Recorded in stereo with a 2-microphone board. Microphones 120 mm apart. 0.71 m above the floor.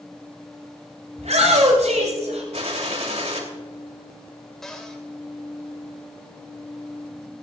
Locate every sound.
1.2 s a shout: 80° right, 7 m; by 2.4 s 85° right, 8 m
2.5 s a gunshot: 70° right (ahead or behind), 3 m
4.6 s a cupboard door: 5° left (ahead or behind), 3 m